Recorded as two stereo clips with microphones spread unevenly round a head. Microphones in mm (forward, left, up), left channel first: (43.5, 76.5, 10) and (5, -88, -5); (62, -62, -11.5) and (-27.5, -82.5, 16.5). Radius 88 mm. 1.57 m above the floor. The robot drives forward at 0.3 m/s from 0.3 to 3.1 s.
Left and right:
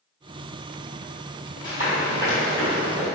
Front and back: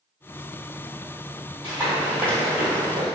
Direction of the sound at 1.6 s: 95° left.